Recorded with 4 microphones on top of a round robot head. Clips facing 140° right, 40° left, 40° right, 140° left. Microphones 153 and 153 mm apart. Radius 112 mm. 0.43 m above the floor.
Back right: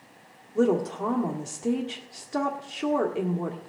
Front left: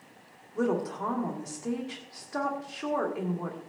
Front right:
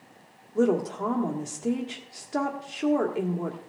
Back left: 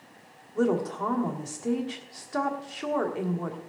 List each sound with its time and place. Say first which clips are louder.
0.6 s a woman speaking: back right 5 dB, front right 2 dB; 90° right, 1.6 m